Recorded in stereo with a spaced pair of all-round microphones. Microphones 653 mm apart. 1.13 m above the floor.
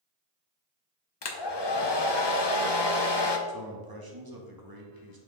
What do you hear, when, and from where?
1.2 s a hair dryer: 40° left (ahead or behind), 0.6 m
3.5 s a man speaking: 35° right (ahead or behind), 1.1 m